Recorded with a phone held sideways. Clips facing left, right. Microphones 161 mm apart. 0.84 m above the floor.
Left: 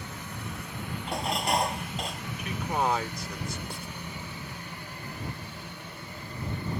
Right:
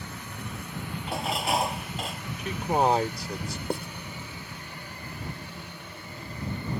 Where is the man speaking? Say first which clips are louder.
Right 5 dB; 35° right (ahead or behind).